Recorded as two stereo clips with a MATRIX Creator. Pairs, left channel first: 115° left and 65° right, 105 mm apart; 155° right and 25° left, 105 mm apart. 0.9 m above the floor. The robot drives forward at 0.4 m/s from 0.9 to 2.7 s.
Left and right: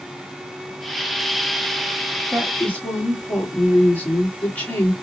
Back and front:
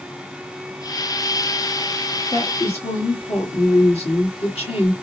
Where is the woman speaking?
170° right, 1.3 m; by 4.9 s 175° right, 1.5 m.